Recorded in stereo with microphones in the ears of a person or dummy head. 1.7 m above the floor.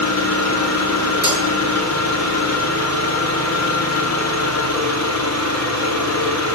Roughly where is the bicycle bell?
No bicycle bell in this recording.